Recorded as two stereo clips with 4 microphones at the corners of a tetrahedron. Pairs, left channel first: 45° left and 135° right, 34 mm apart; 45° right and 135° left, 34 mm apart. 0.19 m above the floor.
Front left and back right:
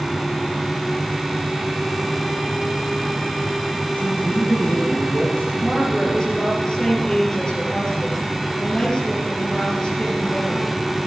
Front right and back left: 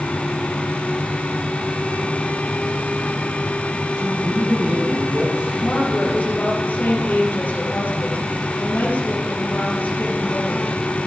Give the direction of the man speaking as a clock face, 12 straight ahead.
9 o'clock.